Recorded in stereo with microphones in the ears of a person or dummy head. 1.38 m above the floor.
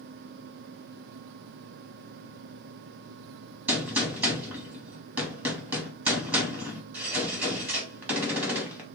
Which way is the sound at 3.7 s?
10° right (ahead or behind).